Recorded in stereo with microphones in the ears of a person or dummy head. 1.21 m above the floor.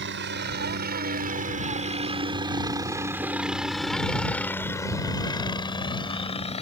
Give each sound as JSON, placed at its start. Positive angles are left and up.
{"t": 0.0, "sound": "a helicopter", "side_deg": -55}